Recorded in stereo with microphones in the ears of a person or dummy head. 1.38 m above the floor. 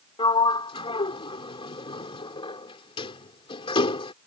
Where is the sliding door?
30° left (ahead or behind).